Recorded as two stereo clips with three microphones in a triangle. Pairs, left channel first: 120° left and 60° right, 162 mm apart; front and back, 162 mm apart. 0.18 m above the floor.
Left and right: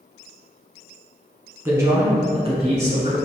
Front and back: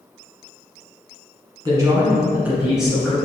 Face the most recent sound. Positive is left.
turn(degrees=-85)